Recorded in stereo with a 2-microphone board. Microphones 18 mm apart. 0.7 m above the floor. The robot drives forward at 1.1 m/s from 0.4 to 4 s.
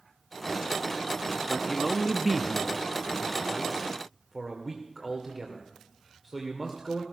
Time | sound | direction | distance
1.5 | a man speaking | 5° right (ahead or behind) | 1.1 m